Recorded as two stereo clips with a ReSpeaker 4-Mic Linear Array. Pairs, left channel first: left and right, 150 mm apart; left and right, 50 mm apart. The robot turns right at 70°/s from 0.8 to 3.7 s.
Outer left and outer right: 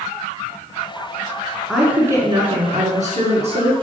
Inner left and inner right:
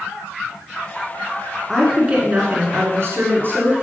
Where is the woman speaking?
175° left, 1.8 m; by 3.8 s 45° right, 1.8 m.